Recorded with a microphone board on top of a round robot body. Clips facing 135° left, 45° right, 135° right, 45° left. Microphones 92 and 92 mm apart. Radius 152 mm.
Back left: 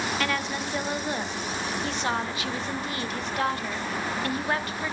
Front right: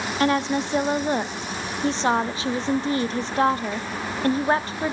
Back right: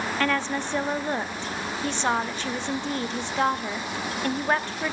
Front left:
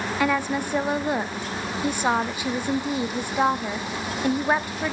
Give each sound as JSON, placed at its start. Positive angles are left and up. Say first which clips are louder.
{"t": 0.2, "sound": "a woman speaking", "louder": "front right 7 dB, front left 3 dB", "azimuth_deg": -25, "distance_m": 0.7}